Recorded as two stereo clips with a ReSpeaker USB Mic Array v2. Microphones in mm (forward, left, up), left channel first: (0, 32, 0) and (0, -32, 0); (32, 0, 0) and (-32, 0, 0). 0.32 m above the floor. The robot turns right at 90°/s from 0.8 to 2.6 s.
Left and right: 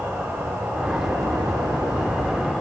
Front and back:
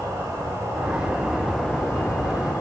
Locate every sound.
0.0 s an insect: 155° right, 1.2 m; by 2.6 s 5° left, 1.2 m